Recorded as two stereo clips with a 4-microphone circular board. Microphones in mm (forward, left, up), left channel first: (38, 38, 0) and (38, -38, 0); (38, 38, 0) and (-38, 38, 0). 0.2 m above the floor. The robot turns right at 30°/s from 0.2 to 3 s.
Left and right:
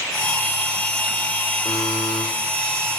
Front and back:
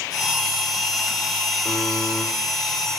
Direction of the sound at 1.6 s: 60° left.